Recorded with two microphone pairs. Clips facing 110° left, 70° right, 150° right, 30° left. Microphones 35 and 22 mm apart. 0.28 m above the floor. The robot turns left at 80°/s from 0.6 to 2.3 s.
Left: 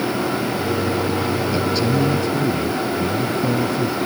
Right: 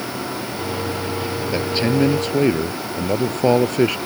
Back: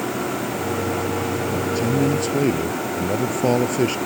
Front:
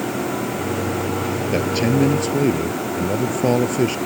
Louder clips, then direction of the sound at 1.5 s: Right 3 dB, front 4 dB; straight ahead.